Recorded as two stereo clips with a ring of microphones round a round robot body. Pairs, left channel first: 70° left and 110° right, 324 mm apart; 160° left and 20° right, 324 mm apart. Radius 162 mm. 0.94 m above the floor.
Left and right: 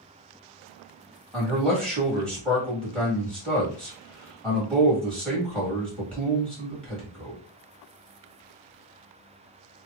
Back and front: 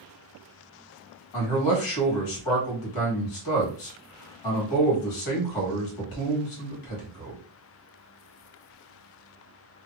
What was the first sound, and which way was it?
A man speaking, 155° left.